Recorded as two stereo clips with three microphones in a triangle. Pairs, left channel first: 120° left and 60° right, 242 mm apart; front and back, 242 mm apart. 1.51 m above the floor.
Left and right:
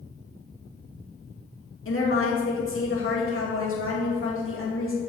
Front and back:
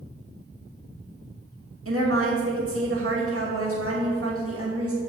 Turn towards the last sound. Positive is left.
turn(degrees=155)